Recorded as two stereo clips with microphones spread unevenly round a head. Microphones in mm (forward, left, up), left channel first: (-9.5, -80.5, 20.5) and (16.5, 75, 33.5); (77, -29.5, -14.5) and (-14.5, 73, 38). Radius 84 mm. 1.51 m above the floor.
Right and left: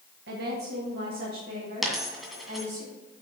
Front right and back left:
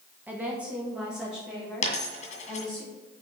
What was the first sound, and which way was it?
A woman speaking, 60° left.